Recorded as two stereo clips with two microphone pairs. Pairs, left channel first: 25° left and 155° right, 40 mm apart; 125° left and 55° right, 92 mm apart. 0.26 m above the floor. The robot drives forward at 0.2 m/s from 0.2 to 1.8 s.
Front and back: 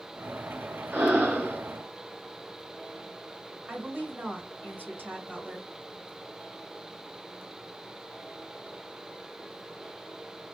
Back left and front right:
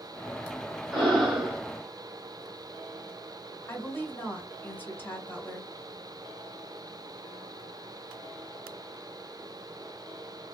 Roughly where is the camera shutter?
No camera shutter in this recording.